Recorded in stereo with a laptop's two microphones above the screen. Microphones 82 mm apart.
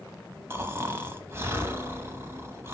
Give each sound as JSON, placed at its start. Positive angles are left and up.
{"t": 0.5, "sound": "snoring", "side_deg": -30, "distance_m": 0.9}